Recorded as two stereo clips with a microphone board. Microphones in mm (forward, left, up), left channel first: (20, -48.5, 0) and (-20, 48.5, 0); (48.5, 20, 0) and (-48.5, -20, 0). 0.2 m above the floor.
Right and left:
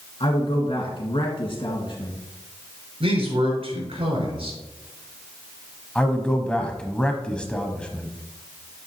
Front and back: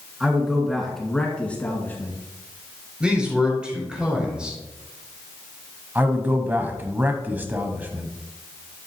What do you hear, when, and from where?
0.2 s a man speaking: 80° right, 2.5 m; by 2.1 s 40° right, 2 m
3.0 s a man speaking: 120° left, 4 m
6.0 s a man speaking: 125° right, 1.0 m